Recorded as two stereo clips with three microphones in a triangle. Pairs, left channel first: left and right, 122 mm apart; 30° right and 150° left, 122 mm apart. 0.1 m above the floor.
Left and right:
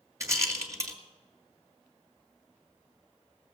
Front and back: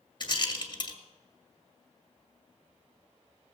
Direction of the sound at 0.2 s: 40° right.